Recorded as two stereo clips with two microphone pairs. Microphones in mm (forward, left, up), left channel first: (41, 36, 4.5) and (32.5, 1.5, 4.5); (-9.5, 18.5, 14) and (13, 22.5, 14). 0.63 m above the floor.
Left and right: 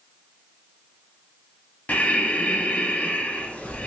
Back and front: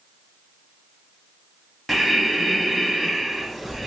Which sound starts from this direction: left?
Breathing, at 1.9 s.